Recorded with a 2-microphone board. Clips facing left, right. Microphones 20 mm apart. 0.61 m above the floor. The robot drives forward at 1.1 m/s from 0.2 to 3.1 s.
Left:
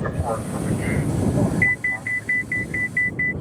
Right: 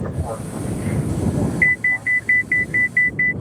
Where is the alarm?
20° right (ahead or behind).